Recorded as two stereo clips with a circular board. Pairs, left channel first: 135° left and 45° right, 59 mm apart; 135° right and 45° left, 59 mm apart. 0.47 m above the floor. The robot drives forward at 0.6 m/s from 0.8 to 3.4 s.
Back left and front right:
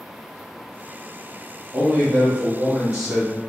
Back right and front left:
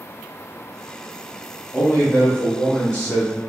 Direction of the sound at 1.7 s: 65° right.